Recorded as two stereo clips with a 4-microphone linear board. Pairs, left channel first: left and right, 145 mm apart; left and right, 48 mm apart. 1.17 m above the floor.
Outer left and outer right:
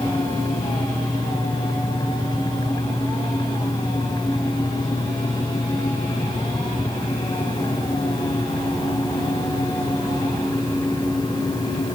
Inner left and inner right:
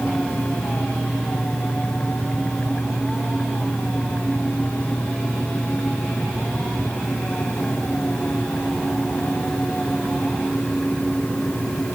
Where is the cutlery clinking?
I don't hear cutlery clinking.